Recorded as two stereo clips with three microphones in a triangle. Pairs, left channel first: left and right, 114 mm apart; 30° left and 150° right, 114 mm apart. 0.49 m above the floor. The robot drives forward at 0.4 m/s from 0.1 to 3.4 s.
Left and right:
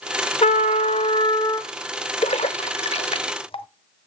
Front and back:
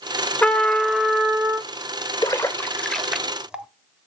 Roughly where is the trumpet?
Left.